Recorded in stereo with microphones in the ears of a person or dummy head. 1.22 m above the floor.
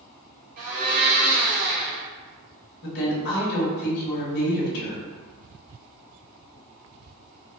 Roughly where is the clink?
I don't hear a clink.